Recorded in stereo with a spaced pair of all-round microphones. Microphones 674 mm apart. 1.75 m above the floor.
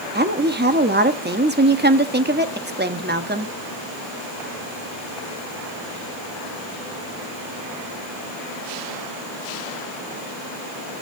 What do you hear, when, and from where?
0.1 s a woman speaking: 15° right (ahead or behind), 0.9 m